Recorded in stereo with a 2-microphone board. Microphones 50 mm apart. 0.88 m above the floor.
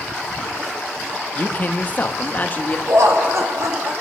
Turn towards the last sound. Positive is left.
turn(degrees=-75)  # may be behind; listen again after turning